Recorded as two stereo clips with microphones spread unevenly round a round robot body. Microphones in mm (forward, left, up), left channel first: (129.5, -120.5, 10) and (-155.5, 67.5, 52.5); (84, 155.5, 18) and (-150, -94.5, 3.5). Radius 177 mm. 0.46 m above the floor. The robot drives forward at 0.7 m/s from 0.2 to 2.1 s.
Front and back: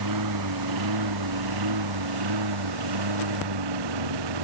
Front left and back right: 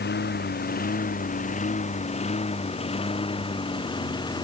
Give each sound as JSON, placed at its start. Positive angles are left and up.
{"t": 0.0, "sound": "a lawn mower", "azimuth_deg": 110}